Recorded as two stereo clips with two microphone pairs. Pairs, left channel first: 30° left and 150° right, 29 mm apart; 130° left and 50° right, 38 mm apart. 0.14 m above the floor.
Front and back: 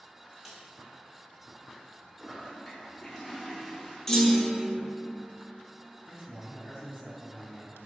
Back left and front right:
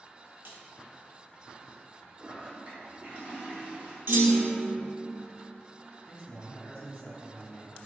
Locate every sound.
0.5 s a snare drum: 65° right, 0.9 m
2.2 s a toilet flushing: 60° right, 1.0 m
4.1 s a clunk: 35° right, 0.6 m
6.0 s a man speaking: straight behind, 1.4 m